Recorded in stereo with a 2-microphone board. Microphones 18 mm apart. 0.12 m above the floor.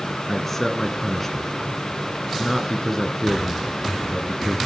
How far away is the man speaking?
About 1.9 m.